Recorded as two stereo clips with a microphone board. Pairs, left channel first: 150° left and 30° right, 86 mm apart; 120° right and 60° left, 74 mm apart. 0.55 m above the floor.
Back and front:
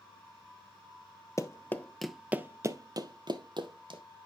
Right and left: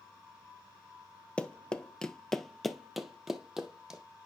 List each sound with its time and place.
1.4 s running footsteps: 170° left, 0.6 m; by 4.0 s 25° right, 1.2 m